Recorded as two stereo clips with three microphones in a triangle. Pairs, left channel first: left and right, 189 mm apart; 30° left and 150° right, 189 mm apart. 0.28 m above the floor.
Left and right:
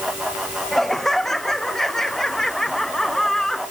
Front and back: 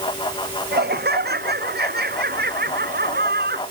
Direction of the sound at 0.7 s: Straight behind.